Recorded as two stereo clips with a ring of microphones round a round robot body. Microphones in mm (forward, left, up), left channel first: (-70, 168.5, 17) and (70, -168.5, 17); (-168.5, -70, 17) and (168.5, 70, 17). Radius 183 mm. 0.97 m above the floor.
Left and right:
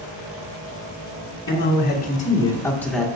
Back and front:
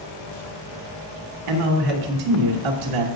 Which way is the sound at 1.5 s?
55° left.